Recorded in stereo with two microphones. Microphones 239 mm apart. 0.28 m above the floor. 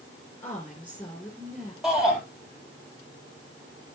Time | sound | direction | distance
0.4 | a woman speaking | 10° left (ahead or behind) | 3.5 m
1.8 | a shout | centre (ahead or behind) | 7 m